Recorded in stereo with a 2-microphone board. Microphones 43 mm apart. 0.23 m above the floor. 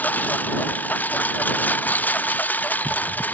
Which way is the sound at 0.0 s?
45° left (ahead or behind).